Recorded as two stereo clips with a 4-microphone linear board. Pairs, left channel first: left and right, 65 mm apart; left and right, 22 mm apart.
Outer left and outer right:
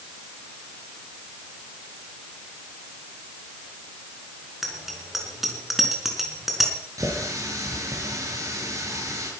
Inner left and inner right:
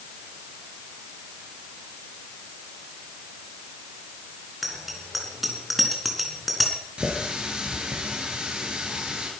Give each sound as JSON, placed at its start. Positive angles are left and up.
{"t": 4.6, "sound": "a bicycle bell", "side_deg": -5, "distance_m": 4.0}
{"t": 7.0, "sound": "a running tap", "side_deg": -60, "distance_m": 5.5}